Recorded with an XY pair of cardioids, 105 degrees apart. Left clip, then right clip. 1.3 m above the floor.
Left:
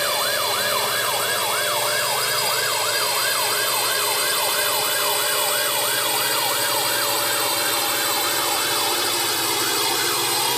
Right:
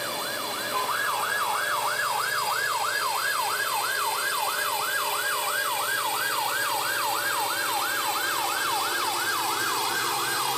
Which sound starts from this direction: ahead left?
A drone, at 0.0 s.